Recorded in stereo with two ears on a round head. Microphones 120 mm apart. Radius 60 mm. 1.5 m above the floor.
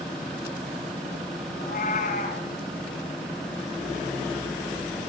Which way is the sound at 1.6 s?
55° left (ahead or behind).